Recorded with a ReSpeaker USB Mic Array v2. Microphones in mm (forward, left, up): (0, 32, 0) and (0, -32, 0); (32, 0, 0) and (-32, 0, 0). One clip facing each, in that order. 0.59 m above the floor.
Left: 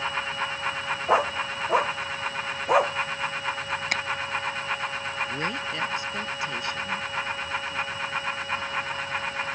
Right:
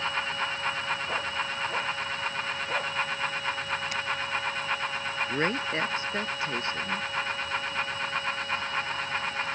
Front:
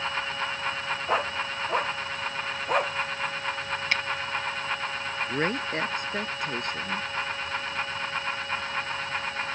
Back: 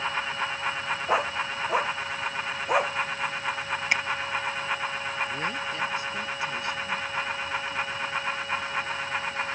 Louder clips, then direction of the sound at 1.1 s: Left 7 dB, back 1 dB; 95° left.